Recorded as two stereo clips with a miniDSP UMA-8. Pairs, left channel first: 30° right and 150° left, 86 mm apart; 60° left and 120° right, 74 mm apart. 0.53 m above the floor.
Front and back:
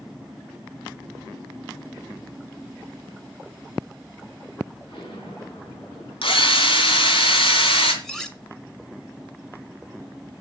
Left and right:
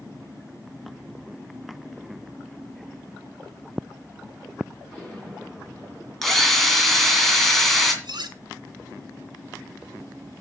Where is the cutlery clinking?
115° right, 1.3 m.